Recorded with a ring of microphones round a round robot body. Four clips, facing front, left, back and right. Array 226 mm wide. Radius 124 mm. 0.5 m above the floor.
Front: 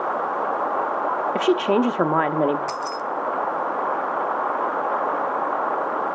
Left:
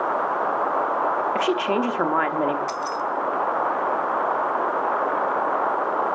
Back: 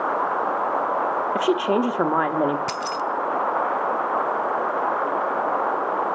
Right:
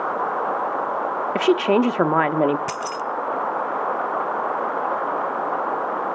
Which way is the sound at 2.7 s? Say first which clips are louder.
Left 1 dB, back 1 dB; 125° right.